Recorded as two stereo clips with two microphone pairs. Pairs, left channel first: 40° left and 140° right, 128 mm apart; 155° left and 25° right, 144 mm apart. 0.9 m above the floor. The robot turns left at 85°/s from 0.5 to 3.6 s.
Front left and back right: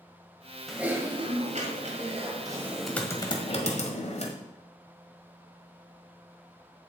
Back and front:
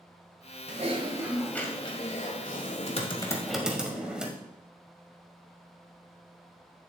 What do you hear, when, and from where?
0.7 s typing on a keyboard: 50° right, 1.4 m; by 4.3 s 65° left, 1.4 m